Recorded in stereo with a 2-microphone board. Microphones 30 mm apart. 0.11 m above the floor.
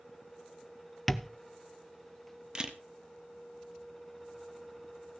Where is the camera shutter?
30° right (ahead or behind), 1.2 m.